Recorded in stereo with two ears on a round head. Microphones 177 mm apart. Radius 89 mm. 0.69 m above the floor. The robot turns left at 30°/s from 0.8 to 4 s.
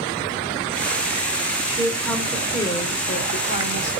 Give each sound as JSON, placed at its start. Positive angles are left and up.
{"t": 1.7, "sound": "a woman speaking", "azimuth_deg": -170, "distance_m": 2.5}